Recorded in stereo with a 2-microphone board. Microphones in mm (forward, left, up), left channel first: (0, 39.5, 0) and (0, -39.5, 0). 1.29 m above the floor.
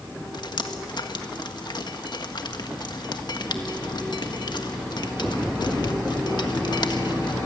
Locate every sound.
0.3 s dripping: 65° left (ahead or behind), 1.4 m